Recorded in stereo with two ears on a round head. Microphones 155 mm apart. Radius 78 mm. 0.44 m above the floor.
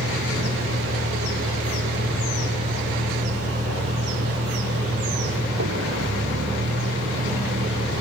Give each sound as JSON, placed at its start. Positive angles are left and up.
{"t": 0.0, "sound": "a vehicle", "side_deg": -85}